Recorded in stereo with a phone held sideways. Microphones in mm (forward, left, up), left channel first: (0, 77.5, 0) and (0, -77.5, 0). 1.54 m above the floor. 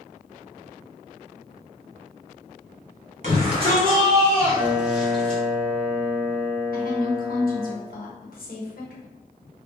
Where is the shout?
50° right (ahead or behind), 1.7 m; by 5.4 s 10° left (ahead or behind), 1.9 m.